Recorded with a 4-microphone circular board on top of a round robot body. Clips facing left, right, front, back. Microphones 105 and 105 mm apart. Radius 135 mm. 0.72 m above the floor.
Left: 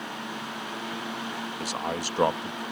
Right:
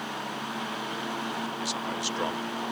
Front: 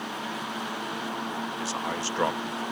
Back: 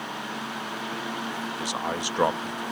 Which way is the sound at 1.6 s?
110° left.